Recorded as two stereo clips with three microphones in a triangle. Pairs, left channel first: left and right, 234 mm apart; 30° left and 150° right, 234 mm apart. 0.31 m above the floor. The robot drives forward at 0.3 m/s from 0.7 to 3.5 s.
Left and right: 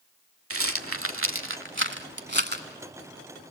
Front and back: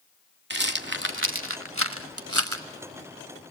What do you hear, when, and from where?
0.5 s a rattle: 105° right, 0.8 m; by 3.5 s 145° right, 1.3 m